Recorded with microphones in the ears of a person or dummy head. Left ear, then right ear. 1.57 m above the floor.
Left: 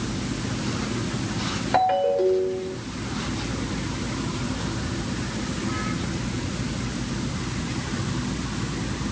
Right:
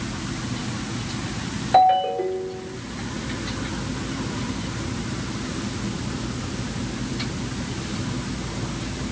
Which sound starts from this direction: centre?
A ringtone, at 1.7 s.